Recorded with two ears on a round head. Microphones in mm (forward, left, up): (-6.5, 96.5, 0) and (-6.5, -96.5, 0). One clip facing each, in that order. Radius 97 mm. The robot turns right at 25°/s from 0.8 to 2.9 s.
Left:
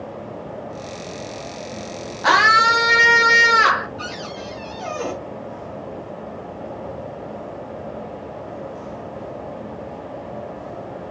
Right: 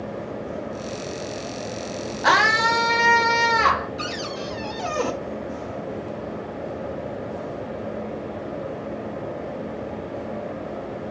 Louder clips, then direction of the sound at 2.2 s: Left 2 dB; centre (ahead or behind).